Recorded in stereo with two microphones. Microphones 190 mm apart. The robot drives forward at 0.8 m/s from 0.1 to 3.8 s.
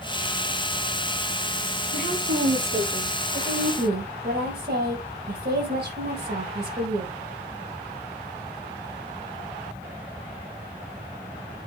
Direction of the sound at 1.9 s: 70° right (ahead or behind).